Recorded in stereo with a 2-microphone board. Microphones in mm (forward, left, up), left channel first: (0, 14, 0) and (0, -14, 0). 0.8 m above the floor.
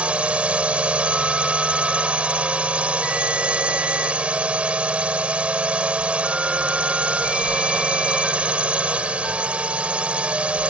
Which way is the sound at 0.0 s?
45° right (ahead or behind).